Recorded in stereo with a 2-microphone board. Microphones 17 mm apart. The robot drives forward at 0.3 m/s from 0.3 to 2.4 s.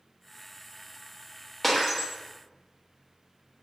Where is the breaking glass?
10° left (ahead or behind), 1.0 m.